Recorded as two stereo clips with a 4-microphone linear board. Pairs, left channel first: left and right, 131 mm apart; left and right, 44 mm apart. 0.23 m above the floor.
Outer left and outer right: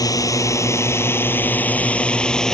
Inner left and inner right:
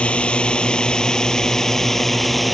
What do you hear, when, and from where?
0.0 s a drone: 25° left (ahead or behind); by 2.5 s 5° left (ahead or behind)